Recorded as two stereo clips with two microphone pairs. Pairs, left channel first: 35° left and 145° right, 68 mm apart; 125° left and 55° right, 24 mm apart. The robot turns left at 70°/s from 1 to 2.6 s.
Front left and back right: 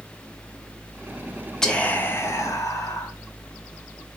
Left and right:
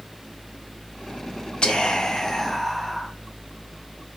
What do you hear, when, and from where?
1.6 s whispering: 115° left, 0.7 m; by 3.1 s 45° left, 0.7 m